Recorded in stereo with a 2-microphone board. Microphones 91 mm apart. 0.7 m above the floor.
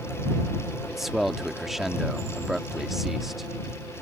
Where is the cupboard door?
No cupboard door in this recording.